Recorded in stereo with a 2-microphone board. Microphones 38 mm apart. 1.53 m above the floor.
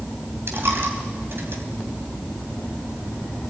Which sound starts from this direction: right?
A dropped coin, at 0.5 s.